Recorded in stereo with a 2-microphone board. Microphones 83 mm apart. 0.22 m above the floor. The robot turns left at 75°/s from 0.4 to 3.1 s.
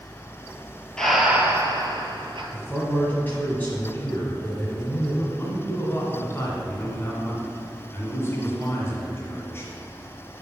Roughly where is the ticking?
No ticking in this recording.